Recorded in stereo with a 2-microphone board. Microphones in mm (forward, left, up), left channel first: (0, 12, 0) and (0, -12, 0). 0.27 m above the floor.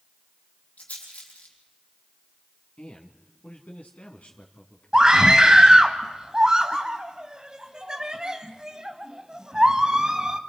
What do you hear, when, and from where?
0.8 s a rattle: 55° left (ahead or behind), 5 m
2.8 s a man speaking: 60° left (ahead or behind), 3 m
4.9 s a scream: 25° right (ahead or behind), 1.7 m